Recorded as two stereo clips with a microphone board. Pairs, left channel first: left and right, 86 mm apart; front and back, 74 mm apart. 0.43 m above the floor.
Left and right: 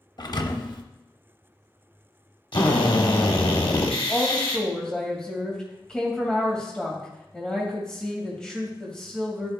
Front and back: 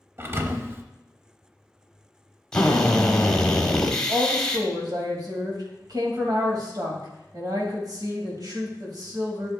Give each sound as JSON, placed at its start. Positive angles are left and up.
{"t": 0.2, "sound": "a thud", "azimuth_deg": 125, "distance_m": 0.6}
{"t": 2.5, "sound": "a drill", "azimuth_deg": 80, "distance_m": 1.0}
{"t": 4.1, "sound": "a woman speaking", "azimuth_deg": 170, "distance_m": 2.5}